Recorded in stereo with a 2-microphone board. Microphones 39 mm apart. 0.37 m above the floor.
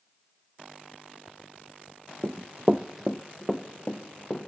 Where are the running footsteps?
55° right (ahead or behind), 0.7 m; by 4.5 s 20° left (ahead or behind), 2.5 m.